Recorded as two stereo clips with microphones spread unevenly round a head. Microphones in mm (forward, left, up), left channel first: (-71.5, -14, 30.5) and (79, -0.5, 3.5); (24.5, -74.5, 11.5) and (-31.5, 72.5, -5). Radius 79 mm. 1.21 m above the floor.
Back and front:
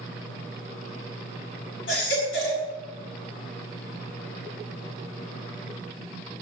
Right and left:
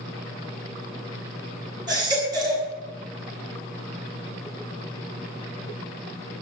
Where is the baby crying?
175° left, 7 m.